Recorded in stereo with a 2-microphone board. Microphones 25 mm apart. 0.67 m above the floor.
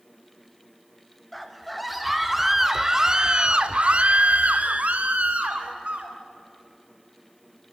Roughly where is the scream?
Centre.